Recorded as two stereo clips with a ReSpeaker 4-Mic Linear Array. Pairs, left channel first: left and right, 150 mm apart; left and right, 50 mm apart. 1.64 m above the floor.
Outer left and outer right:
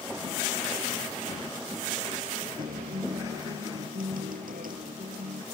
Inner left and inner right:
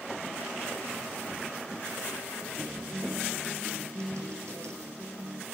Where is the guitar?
75° right (ahead or behind).